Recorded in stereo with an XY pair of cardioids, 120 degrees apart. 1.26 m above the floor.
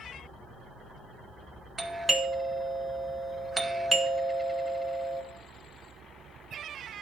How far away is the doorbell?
About 1.0 m.